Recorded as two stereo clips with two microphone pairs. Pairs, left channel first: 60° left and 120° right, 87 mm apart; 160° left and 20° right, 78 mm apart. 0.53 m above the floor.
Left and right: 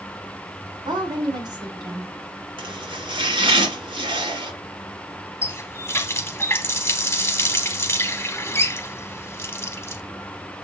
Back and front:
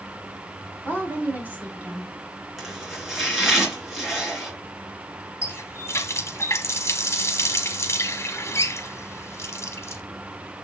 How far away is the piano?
No piano in this recording.